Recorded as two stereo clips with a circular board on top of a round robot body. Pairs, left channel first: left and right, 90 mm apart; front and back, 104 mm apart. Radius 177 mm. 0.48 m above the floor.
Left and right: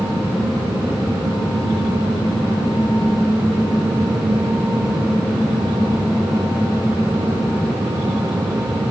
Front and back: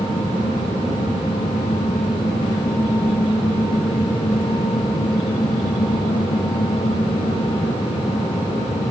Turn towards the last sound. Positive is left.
No sound to turn to.